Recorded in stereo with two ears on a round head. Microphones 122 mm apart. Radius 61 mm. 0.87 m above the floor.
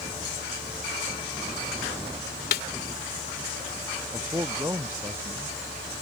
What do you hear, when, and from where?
2.5 s a snare drum: 75° left (ahead or behind)
4.1 s a man speaking: 20° right (ahead or behind)